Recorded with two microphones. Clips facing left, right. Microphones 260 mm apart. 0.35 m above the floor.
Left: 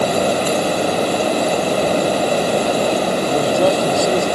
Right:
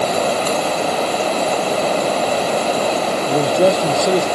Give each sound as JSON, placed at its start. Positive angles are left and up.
{"t": 0.0, "sound": "running water", "side_deg": 15}
{"t": 3.3, "sound": "a man speaking", "side_deg": -20}